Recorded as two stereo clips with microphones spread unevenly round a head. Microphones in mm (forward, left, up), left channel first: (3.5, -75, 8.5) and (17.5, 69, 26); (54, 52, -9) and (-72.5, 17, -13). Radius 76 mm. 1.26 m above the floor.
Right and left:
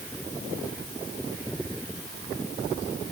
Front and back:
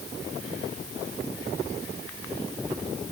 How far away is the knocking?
No knocking in this recording.